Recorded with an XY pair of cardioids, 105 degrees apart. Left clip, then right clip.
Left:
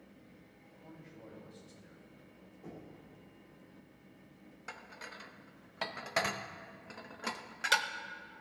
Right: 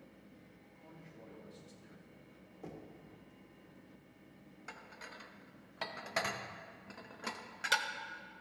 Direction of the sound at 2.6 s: 60° right.